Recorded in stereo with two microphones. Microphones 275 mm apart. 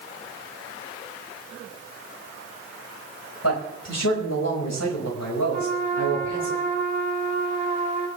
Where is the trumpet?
80° left, 3.5 m.